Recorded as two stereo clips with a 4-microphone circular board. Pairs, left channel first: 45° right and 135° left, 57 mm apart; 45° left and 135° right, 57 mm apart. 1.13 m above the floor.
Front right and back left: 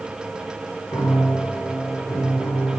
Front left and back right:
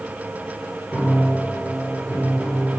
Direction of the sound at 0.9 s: 55° right.